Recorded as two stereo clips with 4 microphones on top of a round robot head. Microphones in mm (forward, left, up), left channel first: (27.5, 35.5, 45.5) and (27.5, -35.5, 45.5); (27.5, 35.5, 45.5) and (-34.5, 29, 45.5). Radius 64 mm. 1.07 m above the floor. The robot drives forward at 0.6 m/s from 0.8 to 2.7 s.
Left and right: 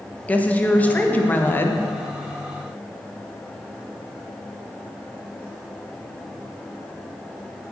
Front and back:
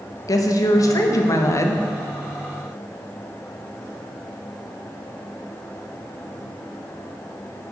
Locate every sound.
0.3 s a woman speaking: 25° left, 1.5 m; by 1.9 s 40° left, 1.0 m